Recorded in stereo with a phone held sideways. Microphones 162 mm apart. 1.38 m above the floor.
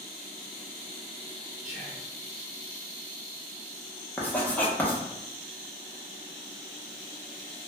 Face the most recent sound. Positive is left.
turn(degrees=10)  # may be behind; listen again after turning